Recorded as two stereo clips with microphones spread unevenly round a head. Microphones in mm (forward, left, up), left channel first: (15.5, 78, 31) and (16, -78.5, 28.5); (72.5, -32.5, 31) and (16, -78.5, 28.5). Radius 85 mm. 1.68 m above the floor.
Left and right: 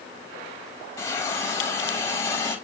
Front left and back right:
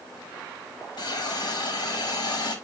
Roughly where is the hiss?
Ahead.